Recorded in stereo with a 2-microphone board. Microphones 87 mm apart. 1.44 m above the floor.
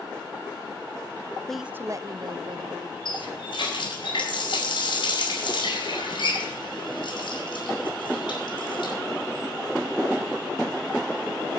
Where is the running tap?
65° left (ahead or behind), 4.5 m.